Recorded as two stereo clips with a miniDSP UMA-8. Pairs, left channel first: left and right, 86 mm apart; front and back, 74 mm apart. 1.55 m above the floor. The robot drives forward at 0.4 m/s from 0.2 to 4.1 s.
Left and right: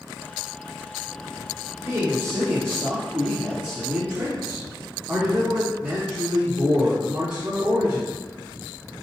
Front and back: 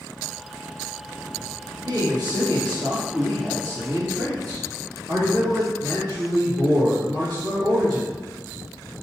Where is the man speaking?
150° right, 1.2 m; by 8.1 s 160° right, 2.0 m.